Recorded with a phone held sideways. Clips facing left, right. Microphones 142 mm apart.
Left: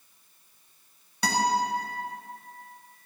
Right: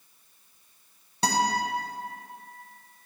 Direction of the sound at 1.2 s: 30° right (ahead or behind).